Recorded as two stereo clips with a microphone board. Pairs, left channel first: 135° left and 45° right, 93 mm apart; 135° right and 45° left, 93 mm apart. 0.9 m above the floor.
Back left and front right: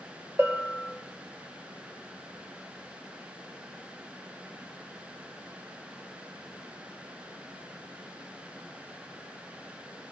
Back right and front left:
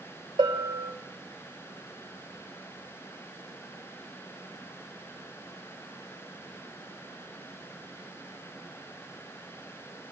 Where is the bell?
20° left, 2.5 m.